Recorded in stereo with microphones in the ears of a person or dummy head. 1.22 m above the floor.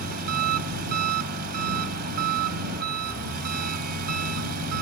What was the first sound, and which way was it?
An engine running, 50° right (ahead or behind).